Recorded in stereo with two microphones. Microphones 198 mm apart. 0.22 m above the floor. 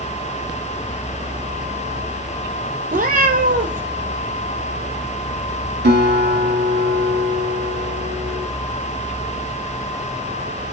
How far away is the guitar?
About 0.8 m.